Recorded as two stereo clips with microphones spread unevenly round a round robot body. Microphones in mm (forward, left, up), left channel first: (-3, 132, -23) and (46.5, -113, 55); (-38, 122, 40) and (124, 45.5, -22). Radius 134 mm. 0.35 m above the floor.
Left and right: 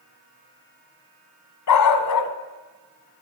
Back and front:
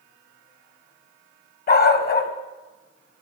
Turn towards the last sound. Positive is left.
turn(degrees=115)